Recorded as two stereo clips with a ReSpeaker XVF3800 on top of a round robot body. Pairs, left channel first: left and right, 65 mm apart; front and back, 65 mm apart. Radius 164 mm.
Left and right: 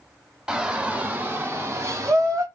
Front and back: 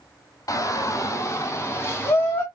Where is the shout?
15° right, 2 m; by 2.4 s 55° right, 3 m.